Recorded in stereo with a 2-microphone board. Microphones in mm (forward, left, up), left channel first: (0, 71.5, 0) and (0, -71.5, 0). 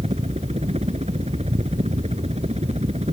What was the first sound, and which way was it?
A helicopter, 50° right (ahead or behind).